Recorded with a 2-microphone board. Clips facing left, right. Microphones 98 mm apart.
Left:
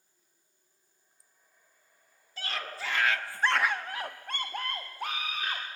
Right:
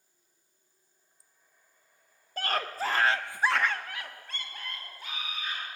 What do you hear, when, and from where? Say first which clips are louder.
2.4 s a scream: right 7 dB; 55° right (ahead or behind), 2 m; by 5.6 s 80° left, 3 m